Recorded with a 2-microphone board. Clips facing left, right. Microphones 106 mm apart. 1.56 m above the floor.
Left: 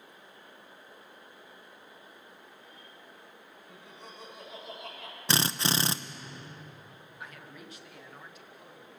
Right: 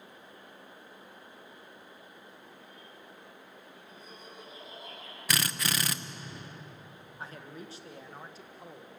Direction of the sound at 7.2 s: 30° right (ahead or behind).